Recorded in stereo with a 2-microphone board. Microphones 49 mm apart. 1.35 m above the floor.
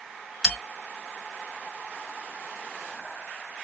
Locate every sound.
0.4 s a bell: centre (ahead or behind), 2 m